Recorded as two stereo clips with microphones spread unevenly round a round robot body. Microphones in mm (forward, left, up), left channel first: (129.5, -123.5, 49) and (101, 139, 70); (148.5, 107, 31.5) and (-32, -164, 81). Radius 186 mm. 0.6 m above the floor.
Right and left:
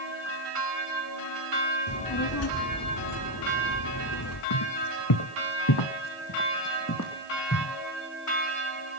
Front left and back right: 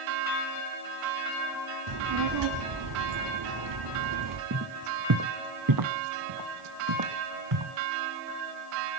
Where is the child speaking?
100° right, 1.5 m.